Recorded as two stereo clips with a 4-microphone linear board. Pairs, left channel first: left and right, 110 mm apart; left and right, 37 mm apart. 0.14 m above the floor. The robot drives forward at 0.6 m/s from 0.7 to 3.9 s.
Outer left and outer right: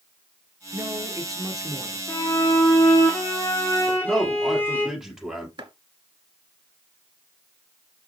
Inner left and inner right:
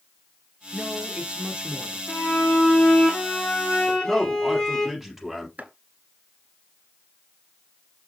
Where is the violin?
30° left (ahead or behind), 2.5 m; by 4.9 s 20° left (ahead or behind), 3.5 m.